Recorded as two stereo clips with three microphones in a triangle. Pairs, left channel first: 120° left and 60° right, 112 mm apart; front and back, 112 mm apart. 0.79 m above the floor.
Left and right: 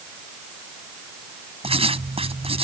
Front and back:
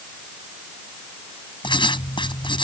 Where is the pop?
No pop in this recording.